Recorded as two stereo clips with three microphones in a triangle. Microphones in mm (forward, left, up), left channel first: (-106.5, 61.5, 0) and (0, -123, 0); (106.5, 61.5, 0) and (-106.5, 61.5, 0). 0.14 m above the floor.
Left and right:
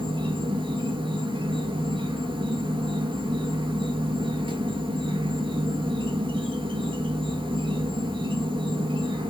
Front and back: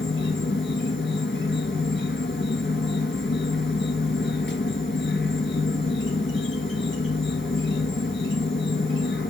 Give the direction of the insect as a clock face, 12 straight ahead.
12 o'clock.